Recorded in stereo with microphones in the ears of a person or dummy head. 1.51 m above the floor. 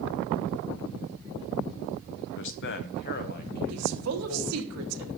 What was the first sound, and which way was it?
A man speaking, 60° left (ahead or behind).